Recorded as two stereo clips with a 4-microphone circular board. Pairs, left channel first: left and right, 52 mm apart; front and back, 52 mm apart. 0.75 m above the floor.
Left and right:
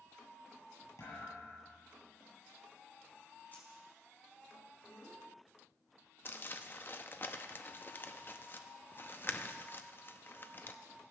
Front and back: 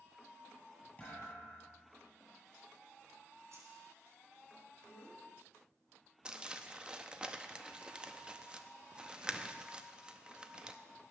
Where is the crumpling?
115° left, 0.7 m.